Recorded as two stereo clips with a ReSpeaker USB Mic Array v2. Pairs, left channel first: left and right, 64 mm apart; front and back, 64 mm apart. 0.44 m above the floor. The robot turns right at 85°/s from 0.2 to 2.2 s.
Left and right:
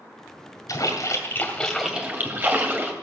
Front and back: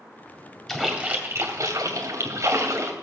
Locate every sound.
0.7 s a splash: 85° left, 2.5 m; by 2.9 s 145° right, 2.5 m